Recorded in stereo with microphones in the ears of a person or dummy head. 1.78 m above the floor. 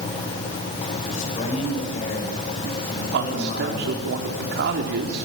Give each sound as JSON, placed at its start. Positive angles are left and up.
{"t": 1.1, "sound": "a man speaking", "side_deg": 40, "distance_m": 9.5}
{"t": 3.1, "sound": "a man speaking", "side_deg": -60, "distance_m": 3.5}